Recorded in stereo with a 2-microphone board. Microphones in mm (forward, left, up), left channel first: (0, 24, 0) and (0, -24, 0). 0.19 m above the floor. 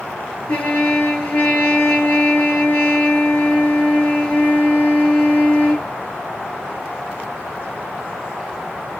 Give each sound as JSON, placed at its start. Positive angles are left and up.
{"t": 0.5, "sound": "a trumpet", "side_deg": 30, "distance_m": 1.9}